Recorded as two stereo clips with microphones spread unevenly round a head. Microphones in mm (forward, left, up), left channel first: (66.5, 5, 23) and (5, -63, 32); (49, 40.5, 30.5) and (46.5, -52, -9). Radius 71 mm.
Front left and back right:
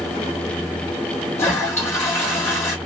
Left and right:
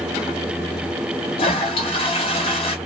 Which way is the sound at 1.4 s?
125° left.